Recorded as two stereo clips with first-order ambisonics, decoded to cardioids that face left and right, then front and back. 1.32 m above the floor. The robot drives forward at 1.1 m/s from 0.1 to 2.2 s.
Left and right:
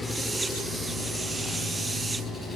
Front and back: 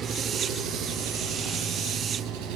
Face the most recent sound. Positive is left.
turn(degrees=175)